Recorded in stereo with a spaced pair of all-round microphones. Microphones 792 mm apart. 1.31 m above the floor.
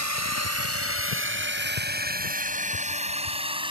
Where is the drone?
20° right (ahead or behind); by 3.7 s 5° right (ahead or behind).